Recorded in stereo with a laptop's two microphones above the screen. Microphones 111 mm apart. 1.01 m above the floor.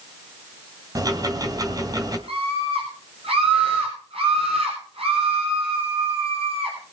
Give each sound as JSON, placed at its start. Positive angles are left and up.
{"t": 0.9, "sound": "ticking", "side_deg": -35, "distance_m": 2.5}
{"t": 2.3, "sound": "a scream", "side_deg": -60, "distance_m": 4.5}